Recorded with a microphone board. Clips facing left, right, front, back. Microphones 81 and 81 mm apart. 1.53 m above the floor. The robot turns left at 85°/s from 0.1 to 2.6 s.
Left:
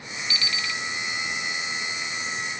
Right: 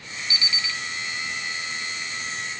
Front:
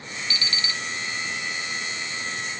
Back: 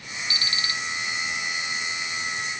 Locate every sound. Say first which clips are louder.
0.3 s an alarm clock: left 1 dB, back 1 dB; 150° right, 0.7 m; by 0.8 s 170° left, 0.7 m